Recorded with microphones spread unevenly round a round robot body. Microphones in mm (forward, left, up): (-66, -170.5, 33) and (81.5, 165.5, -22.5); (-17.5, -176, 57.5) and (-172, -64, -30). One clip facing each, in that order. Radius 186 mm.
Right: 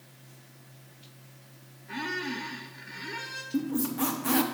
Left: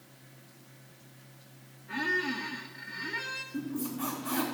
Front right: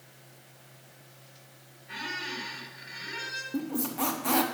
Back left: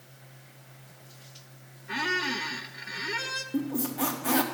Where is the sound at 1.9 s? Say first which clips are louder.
Left 1 dB, back left 8 dB; 160° left, 0.7 m.